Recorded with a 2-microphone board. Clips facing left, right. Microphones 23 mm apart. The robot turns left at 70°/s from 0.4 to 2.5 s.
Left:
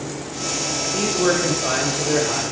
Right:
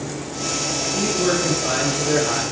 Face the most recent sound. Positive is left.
turn(degrees=-30)